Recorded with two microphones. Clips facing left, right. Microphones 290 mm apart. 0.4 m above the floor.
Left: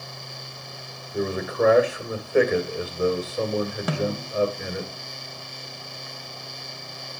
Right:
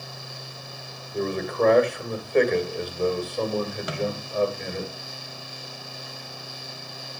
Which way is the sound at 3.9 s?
55° left (ahead or behind).